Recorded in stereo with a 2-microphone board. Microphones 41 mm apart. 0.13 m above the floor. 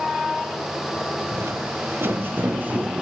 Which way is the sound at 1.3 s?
75° right (ahead or behind).